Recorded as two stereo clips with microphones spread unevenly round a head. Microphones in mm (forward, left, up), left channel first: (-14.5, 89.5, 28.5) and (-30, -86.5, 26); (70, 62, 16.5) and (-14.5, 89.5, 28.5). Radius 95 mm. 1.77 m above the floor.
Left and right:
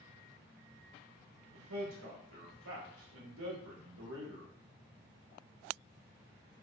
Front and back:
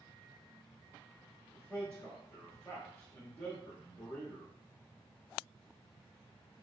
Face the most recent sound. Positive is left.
turn(degrees=-105)